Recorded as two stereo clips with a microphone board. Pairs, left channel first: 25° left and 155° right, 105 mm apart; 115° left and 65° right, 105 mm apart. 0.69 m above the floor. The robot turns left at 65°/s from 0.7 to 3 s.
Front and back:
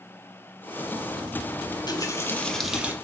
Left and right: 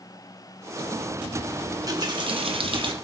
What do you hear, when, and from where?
1.7 s a running tap: 5° right, 0.8 m; by 2.9 s 90° right, 0.8 m